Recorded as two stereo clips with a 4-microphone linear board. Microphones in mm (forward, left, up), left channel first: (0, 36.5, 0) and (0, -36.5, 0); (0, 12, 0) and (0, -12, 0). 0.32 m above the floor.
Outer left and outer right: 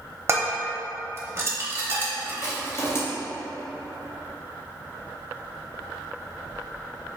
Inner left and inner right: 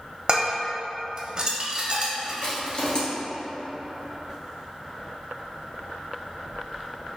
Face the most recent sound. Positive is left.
turn(degrees=40)  # may be behind; listen again after turning